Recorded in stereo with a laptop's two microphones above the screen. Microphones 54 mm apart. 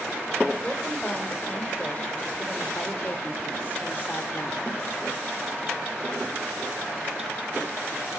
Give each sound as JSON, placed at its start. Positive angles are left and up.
{"t": 0.6, "sound": "a woman speaking", "side_deg": 20, "distance_m": 4.5}